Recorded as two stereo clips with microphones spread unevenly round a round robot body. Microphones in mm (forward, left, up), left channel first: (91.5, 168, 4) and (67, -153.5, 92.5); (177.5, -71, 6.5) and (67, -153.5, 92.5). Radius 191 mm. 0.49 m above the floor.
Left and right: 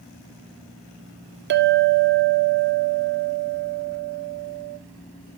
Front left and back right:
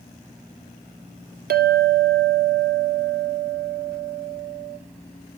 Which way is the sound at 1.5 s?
150° right.